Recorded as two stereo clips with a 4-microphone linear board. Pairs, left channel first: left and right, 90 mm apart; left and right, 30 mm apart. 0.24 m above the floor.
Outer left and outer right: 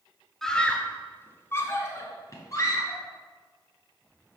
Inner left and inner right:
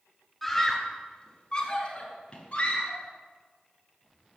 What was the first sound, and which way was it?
A scream, 5° left (ahead or behind).